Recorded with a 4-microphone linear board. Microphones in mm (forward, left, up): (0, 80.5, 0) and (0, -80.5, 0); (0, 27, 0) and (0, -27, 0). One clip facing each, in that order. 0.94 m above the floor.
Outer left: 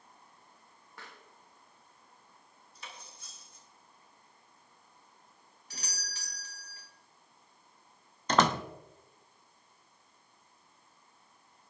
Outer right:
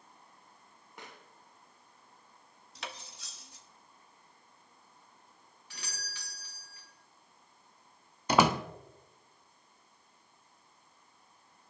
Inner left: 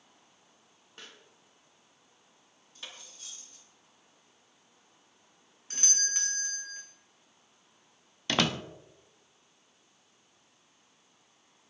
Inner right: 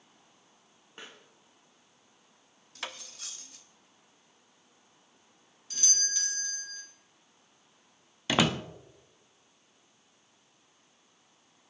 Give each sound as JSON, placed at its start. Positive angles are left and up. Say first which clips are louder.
{"t": 1.0, "sound": "a pop", "louder": "outer right 2 dB, inner right 3 dB", "side_deg": -20, "distance_m": 1.2}
{"t": 2.8, "sound": "cutlery clinking", "louder": "outer right 5 dB, inner right 7 dB", "side_deg": -80, "distance_m": 0.9}
{"t": 5.7, "sound": "a doorbell", "louder": "outer left 1 dB, inner left 1 dB", "side_deg": 40, "distance_m": 2.5}
{"t": 8.3, "sound": "a door slam", "louder": "outer right 1 dB, inner right 2 dB", "side_deg": -10, "distance_m": 0.5}